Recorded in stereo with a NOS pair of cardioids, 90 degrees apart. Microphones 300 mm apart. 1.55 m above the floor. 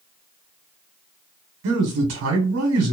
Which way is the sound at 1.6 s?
60° right.